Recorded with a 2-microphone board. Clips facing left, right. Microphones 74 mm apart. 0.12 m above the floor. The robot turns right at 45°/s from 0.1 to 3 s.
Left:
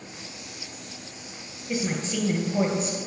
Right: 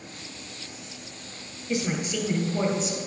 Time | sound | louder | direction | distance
1.7 | a woman speaking | even | 15° left | 2.5 m